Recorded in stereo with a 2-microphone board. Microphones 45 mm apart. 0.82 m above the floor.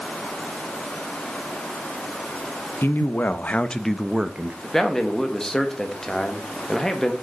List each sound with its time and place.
2.8 s a man speaking: 55° left (ahead or behind), 0.9 m; by 4.5 s 35° right (ahead or behind), 0.6 m
4.6 s a man speaking: 10° left (ahead or behind), 1.1 m